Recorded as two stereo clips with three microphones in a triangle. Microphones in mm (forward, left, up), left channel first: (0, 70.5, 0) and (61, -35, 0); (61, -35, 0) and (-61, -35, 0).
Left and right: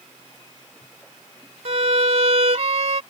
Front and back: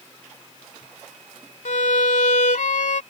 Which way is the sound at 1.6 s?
20° right.